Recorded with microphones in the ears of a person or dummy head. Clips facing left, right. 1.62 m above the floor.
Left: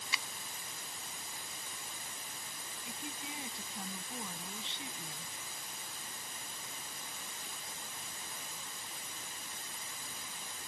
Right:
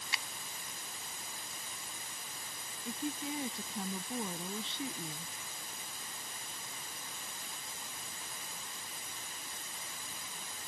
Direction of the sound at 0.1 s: 80° left.